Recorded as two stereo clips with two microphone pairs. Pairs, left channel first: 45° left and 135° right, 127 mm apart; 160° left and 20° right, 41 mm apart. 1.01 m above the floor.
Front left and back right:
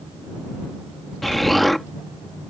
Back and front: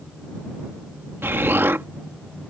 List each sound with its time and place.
1.2 s an explosion: 45° right